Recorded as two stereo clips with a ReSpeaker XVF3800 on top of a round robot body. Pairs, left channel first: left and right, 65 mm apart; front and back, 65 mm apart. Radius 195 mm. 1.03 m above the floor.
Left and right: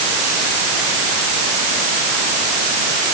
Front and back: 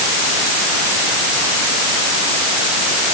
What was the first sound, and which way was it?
Only background noise.